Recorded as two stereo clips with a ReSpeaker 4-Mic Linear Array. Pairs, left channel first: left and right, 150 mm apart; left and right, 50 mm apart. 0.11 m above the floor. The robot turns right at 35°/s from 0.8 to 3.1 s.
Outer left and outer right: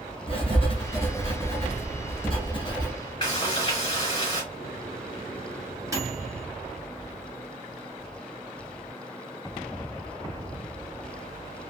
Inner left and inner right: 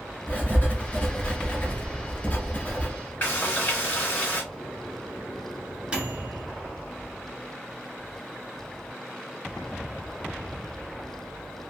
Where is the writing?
60° left, 0.9 m; by 2.9 s 135° left, 0.9 m.